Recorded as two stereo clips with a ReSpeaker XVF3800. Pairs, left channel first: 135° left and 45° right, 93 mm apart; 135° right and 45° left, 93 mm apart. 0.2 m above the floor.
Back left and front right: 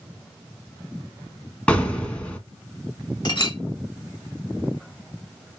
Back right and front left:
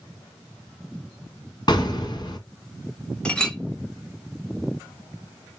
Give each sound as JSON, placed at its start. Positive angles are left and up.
{"t": 1.7, "sound": "an explosion", "azimuth_deg": -150, "distance_m": 1.7}
{"t": 3.2, "sound": "a clink", "azimuth_deg": 150, "distance_m": 1.1}